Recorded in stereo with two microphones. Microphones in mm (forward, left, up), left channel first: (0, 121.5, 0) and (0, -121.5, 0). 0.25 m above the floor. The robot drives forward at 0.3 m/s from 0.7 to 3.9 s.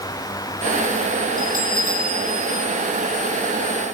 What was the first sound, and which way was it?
A bell, 35° right (ahead or behind).